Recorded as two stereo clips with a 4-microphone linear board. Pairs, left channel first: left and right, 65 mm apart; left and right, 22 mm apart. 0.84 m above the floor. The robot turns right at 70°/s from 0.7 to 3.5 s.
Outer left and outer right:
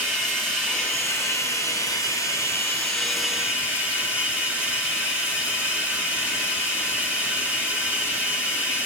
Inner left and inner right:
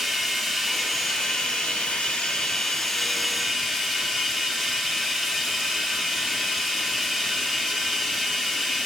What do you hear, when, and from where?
0.0 s running water: 10° left, 4.5 m; by 8.9 s 155° right, 4.5 m